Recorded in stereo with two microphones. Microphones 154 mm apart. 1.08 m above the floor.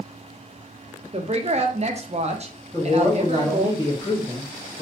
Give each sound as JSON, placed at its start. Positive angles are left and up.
{"t": 1.1, "sound": "a woman speaking", "side_deg": -45, "distance_m": 0.6}
{"t": 2.7, "sound": "a man speaking", "side_deg": 25, "distance_m": 1.6}